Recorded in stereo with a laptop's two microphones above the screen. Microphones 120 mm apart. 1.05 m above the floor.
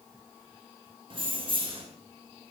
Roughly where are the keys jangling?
Right.